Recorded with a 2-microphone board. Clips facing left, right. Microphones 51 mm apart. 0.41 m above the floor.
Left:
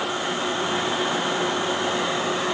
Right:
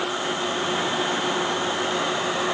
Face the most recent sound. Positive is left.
No sound to turn to.